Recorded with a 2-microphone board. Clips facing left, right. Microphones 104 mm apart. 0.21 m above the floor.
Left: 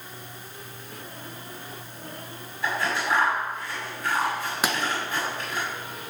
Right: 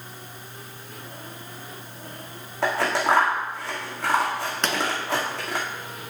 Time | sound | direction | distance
2.6 | scissors | 80° right | 2 m
4.6 | a pop | 10° left (ahead or behind) | 1.0 m